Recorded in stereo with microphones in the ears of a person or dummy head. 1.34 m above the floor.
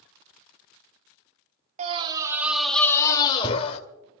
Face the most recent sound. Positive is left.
turn(degrees=30)  # may be behind; listen again after turning